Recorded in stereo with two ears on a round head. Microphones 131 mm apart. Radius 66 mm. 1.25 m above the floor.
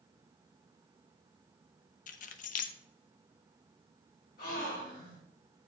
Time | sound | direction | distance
2.1 | keys jangling | 55° left (ahead or behind) | 0.5 m
4.4 | a gasp | 60° left (ahead or behind) | 3 m